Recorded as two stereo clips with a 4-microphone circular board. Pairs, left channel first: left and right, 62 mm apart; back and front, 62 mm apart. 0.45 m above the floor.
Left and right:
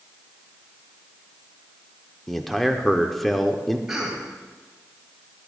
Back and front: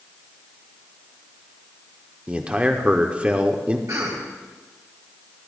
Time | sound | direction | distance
2.3 | a man speaking | 10° left | 0.8 m
3.9 | a cough | 5° right | 2.5 m